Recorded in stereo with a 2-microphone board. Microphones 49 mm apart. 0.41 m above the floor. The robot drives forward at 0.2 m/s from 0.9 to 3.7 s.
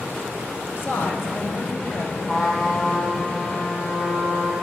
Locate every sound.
0.8 s a woman speaking: 50° left (ahead or behind), 2.5 m
2.3 s a trumpet: 25° left (ahead or behind), 2.5 m